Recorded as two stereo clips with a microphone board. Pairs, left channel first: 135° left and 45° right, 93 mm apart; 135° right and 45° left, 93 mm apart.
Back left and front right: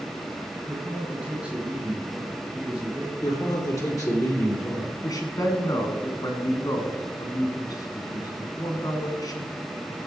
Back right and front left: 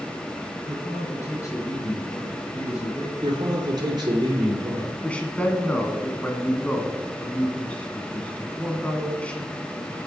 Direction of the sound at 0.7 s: 115° right.